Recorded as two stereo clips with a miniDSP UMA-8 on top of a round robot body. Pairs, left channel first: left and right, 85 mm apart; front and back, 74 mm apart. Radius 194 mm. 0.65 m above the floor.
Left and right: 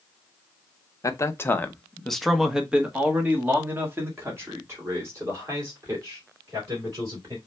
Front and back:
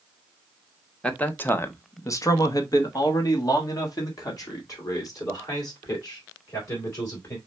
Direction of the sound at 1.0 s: 70° left.